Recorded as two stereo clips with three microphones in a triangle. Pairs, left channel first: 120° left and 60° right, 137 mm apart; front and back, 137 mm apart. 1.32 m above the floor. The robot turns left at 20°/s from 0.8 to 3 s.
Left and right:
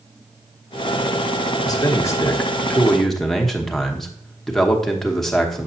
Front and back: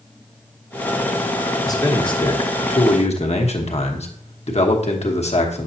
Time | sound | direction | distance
1.6 | a man speaking | 60° left | 1.1 m